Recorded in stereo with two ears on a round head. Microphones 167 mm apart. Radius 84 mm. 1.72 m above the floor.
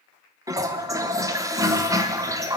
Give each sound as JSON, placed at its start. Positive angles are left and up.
{"t": 0.5, "sound": "a toilet flushing", "side_deg": -15, "distance_m": 0.9}